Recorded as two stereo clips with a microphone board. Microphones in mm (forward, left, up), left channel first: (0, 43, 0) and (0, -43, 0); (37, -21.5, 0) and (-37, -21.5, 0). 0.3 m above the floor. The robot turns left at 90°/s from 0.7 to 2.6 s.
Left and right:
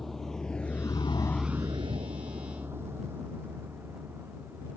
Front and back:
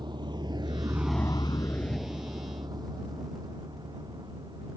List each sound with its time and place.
0.0 s a vehicle: 175° left; by 4.8 s 160° right